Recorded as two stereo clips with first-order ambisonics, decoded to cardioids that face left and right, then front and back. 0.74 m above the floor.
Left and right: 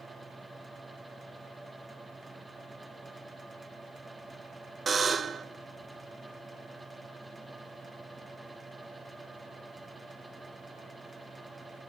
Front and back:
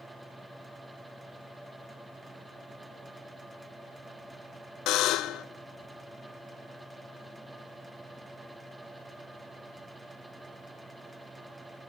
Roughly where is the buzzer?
Ahead.